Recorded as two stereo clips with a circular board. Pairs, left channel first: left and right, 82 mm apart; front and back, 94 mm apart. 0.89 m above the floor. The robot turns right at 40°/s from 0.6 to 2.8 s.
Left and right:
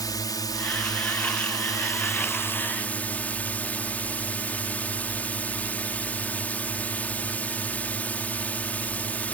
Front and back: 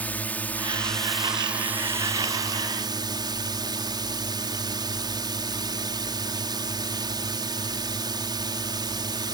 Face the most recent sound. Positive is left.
turn(degrees=155)